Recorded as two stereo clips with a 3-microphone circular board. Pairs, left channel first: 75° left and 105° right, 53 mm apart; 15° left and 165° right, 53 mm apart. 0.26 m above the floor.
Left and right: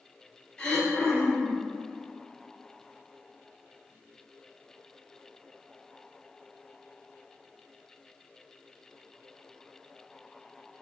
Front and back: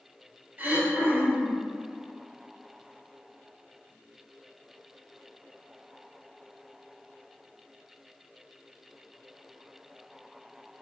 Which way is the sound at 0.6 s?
150° left.